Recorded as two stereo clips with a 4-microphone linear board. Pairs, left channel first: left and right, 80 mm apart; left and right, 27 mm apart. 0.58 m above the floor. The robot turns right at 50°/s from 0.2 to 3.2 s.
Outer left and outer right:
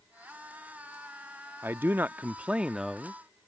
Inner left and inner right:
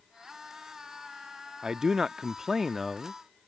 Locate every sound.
1.6 s a man speaking: 25° right (ahead or behind); by 3.2 s centre (ahead or behind)